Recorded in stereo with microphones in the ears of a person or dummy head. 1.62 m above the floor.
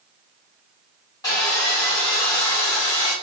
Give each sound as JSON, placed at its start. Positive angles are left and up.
{"t": 1.2, "sound": "sawing", "side_deg": 20, "distance_m": 4.0}